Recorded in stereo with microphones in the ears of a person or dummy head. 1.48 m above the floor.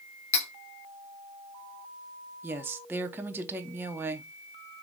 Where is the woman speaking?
10° right (ahead or behind), 0.6 m.